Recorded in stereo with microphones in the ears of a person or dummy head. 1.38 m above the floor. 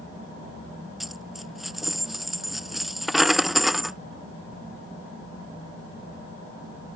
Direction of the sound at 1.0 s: Centre (ahead or behind).